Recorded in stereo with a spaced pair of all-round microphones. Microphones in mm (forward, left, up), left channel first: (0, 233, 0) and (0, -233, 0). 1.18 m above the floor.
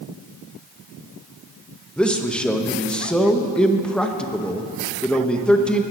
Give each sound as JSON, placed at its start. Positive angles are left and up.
{"t": 2.0, "sound": "a man speaking", "side_deg": 0, "distance_m": 0.8}